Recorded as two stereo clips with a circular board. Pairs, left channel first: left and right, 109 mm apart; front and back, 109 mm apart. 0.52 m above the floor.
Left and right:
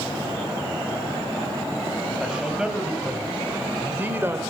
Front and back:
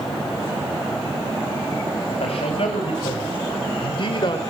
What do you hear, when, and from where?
2.2 s a man speaking: 5° right, 4 m; by 4.4 s 30° right, 2 m